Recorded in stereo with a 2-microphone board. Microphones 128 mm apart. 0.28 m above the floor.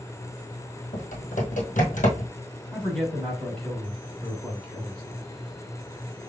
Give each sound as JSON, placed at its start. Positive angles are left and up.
{"t": 0.9, "sound": "typing on a keyboard", "side_deg": 90, "distance_m": 1.6}
{"t": 2.7, "sound": "a man speaking", "side_deg": 5, "distance_m": 2.5}